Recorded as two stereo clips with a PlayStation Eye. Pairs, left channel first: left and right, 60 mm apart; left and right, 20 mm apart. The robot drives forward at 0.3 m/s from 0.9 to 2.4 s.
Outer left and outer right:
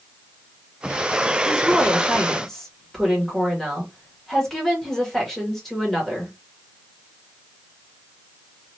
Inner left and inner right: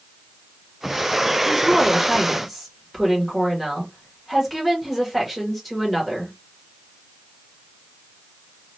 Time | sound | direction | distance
1.4 | a woman speaking | 5° left (ahead or behind) | 1.8 m